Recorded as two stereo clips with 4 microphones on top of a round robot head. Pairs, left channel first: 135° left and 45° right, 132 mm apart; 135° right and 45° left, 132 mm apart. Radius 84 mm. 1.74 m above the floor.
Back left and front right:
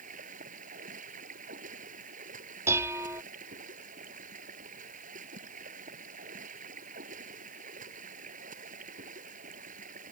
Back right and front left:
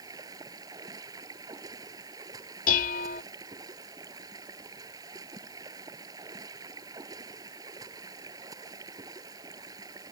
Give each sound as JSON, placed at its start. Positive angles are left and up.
{"t": 0.0, "sound": "running water", "azimuth_deg": -20}
{"t": 2.7, "sound": "dishes clattering", "azimuth_deg": -120}